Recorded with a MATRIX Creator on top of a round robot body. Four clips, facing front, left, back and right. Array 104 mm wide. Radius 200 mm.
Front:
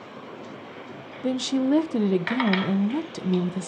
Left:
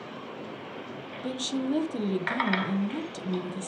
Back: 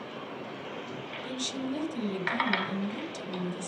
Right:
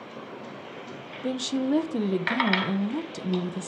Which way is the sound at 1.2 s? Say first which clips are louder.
Right 3 dB, front 13 dB; 20° right.